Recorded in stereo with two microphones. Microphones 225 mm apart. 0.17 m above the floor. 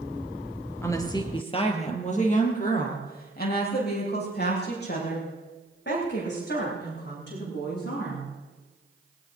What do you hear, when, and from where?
0.8 s a woman speaking: 10° left (ahead or behind), 2.5 m; by 8.3 s 55° left (ahead or behind), 10.5 m